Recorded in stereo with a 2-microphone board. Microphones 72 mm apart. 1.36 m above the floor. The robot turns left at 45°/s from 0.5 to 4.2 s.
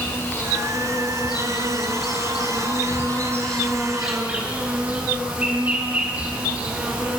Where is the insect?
145° left, 7.5 m; by 7.2 s 20° right, 7.5 m.